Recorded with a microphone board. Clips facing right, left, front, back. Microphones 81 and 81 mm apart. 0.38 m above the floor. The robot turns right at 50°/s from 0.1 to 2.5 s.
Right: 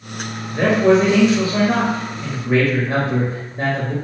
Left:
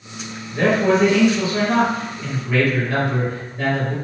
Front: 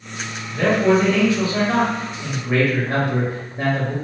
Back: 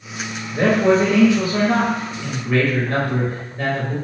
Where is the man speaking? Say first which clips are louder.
Right 3 dB, back 1 dB; 160° right, 1.7 m; by 3.9 s 60° right, 1.7 m.